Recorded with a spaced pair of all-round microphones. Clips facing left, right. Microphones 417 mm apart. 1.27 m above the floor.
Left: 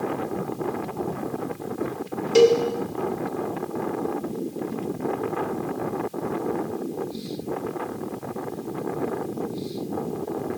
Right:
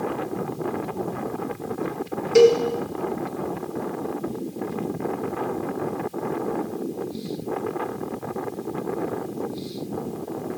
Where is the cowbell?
50° left (ahead or behind), 0.6 m.